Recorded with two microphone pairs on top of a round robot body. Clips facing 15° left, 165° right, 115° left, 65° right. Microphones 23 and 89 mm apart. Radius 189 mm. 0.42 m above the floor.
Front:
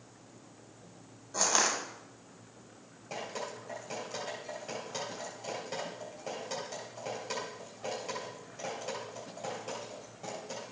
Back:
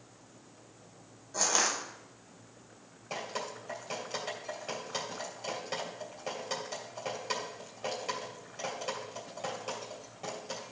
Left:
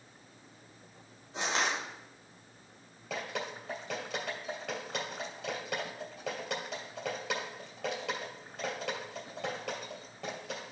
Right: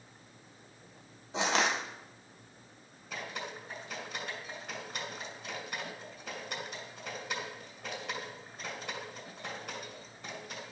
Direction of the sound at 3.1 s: 120° left.